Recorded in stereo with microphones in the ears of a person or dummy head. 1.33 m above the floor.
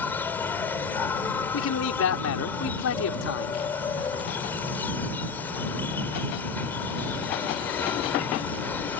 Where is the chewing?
No chewing in this recording.